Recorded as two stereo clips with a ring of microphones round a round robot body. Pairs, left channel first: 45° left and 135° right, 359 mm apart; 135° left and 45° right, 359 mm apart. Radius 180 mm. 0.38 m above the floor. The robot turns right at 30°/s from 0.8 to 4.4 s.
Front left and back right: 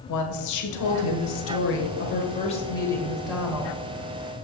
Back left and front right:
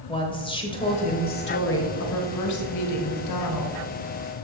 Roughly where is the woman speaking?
Ahead left.